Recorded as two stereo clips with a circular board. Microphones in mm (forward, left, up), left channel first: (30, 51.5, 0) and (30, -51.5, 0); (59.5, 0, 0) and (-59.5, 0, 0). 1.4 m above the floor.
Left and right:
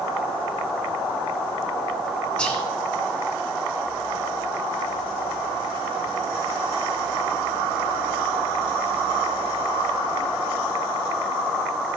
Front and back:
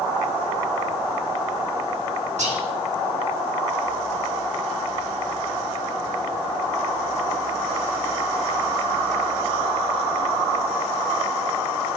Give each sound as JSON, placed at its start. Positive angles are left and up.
{"t": 2.4, "sound": "whispering", "azimuth_deg": 170, "distance_m": 1.8}